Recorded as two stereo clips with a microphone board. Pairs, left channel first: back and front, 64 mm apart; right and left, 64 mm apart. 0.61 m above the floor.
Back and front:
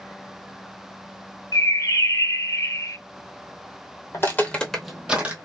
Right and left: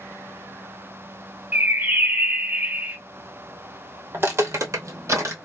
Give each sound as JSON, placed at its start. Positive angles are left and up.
{"t": 1.5, "sound": "a bird", "azimuth_deg": 155, "distance_m": 0.6}
{"t": 4.1, "sound": "footsteps", "azimuth_deg": 140, "distance_m": 1.0}